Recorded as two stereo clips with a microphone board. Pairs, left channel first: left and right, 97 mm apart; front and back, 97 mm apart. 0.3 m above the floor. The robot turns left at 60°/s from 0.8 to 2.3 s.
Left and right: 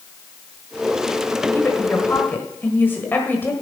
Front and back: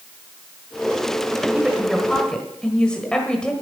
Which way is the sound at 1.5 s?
110° left.